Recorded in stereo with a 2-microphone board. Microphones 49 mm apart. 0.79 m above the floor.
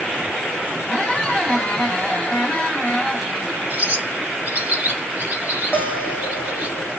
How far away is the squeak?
About 0.8 m.